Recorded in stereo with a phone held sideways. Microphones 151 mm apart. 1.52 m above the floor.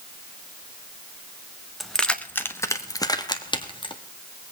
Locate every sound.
1.8 s keys jangling: centre (ahead or behind), 1.0 m; by 4.0 s 35° left (ahead or behind), 1.7 m